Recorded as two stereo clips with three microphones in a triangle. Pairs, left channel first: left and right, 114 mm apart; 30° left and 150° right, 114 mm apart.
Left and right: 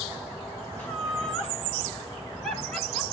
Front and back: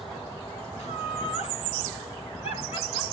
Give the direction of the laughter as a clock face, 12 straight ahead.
11 o'clock.